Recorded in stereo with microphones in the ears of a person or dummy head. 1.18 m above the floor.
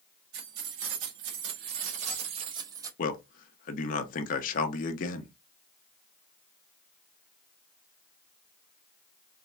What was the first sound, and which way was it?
Keys jangling, 85° right.